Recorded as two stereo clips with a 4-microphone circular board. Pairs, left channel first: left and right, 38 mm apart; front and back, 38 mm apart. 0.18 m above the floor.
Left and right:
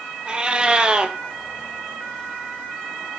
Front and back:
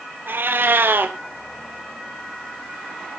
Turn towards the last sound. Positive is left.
turn(degrees=-155)